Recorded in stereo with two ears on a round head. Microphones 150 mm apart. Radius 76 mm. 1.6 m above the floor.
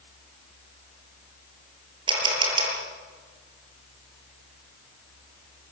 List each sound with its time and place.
2.1 s a camera shutter: 30° right (ahead or behind), 6.5 m